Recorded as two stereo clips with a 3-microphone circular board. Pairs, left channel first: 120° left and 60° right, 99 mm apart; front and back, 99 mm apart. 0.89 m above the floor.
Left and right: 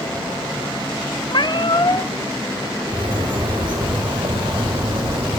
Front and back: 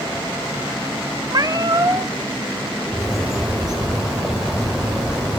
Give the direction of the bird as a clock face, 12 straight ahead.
3 o'clock.